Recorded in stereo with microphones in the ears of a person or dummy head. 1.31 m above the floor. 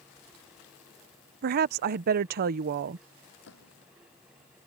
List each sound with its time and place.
1.4 s a woman speaking: 45° right (ahead or behind)
3.4 s a gunshot: 65° left (ahead or behind)